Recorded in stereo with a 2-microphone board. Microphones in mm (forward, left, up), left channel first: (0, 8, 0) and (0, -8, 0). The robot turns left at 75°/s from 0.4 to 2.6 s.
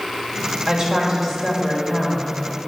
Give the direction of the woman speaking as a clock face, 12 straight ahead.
4 o'clock.